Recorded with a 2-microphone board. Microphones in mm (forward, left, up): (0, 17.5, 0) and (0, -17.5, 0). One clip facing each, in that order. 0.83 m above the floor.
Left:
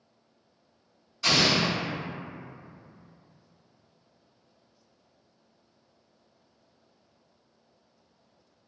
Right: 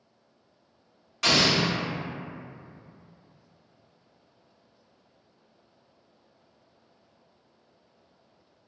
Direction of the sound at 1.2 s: 80° right.